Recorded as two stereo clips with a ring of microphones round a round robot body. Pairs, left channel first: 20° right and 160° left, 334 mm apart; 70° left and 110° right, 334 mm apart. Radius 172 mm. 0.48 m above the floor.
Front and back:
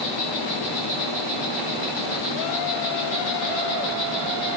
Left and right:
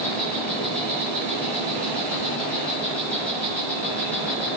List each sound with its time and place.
0.0 s an insect: 20° right, 9.5 m